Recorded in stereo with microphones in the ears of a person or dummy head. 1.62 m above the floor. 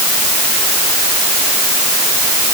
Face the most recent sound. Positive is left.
No sound to turn to.